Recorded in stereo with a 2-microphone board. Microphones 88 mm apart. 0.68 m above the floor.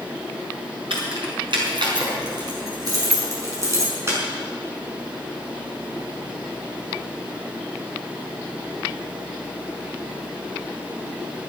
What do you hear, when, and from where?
0.9 s keys jangling: 70° right (ahead or behind), 5.5 m; by 4.2 s 30° right (ahead or behind), 6 m